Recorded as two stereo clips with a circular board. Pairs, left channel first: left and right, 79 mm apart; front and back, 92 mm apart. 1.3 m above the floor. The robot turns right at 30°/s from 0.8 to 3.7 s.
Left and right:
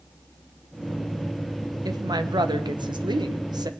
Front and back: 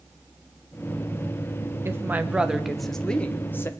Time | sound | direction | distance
1.9 | a woman speaking | 120° right | 1.2 m